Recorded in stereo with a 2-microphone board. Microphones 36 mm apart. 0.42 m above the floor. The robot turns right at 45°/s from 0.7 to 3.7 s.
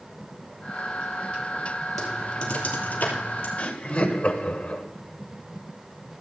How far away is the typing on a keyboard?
About 3 m.